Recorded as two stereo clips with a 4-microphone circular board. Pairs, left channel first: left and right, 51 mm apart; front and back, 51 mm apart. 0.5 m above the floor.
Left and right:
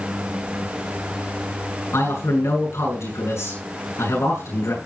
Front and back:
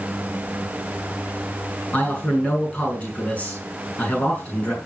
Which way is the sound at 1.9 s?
65° left.